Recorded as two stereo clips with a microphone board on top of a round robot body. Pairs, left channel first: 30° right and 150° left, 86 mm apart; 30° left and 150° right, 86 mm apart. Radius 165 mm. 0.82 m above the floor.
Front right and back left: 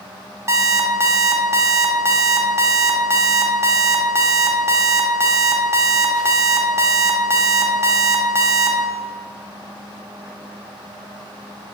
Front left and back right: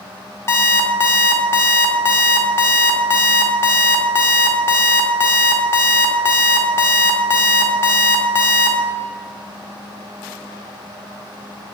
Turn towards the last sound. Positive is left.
turn(degrees=90)